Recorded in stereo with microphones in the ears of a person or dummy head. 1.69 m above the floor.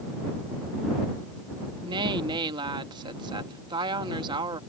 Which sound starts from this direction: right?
A woman speaking, at 1.9 s.